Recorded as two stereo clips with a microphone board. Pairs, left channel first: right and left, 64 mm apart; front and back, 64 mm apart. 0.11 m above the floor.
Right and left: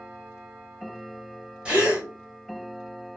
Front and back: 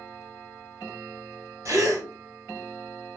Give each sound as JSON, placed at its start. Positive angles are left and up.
{"t": 1.6, "sound": "a gasp", "azimuth_deg": 160, "distance_m": 1.5}